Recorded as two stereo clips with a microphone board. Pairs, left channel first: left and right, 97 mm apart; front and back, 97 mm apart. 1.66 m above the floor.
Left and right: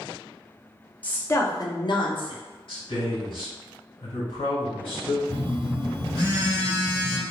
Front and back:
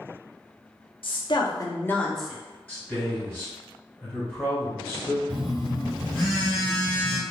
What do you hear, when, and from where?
1.0 s a woman speaking: 15° left, 0.7 m; by 2.4 s 95° left, 0.6 m
2.7 s a man speaking: 70° left, 1.6 m
5.3 s a phone buzzing: 80° right, 1.7 m